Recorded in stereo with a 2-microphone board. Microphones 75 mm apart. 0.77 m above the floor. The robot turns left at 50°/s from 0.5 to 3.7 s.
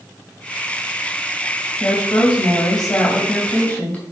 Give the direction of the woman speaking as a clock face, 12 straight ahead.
8 o'clock.